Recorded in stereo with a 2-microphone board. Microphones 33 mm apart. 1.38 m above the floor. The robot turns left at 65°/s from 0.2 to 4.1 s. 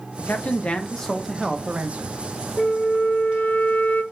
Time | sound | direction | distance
0.2 | a man speaking | 65° left | 0.7 m
2.6 | a flute | 155° left | 0.6 m